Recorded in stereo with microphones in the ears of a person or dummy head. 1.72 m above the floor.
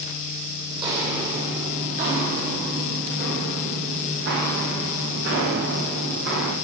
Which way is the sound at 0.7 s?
30° right (ahead or behind).